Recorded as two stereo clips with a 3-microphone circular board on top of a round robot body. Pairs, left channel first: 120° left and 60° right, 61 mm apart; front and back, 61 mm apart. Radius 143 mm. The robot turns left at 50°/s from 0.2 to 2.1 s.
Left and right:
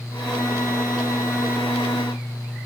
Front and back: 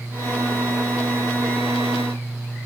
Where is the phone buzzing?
No phone buzzing in this recording.